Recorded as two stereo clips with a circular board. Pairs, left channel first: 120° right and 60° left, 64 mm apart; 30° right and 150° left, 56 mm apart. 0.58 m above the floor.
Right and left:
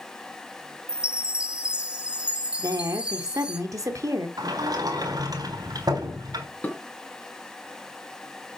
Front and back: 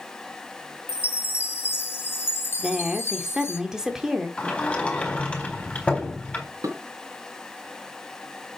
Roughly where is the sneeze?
I don't hear a sneeze.